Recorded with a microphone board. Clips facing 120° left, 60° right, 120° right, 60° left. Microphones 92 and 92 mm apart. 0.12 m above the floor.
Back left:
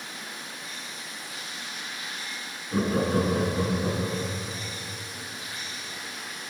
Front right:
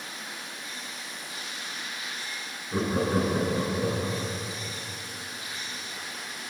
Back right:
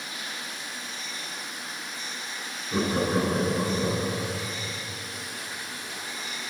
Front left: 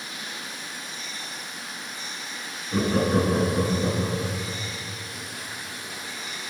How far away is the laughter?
About 1.2 m.